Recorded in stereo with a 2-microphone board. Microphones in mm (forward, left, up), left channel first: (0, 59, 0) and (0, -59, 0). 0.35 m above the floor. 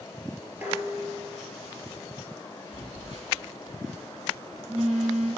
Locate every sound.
0.6 s dishes clattering: 15° right (ahead or behind), 4 m
2.7 s a phone buzzing: 70° right (ahead or behind), 4 m